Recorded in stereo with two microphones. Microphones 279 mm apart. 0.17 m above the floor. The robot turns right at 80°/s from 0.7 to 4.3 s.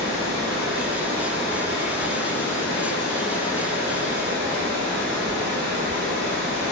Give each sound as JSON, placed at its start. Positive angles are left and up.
{"t": 0.0, "sound": "running water", "azimuth_deg": -60, "distance_m": 1.0}